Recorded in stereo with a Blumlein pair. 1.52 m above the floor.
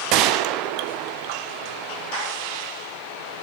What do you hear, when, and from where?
0.1 s a gunshot: 40° right, 0.8 m